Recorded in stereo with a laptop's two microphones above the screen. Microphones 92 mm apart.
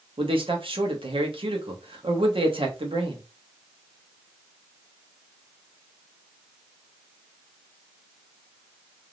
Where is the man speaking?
70° right (ahead or behind), 1.1 m.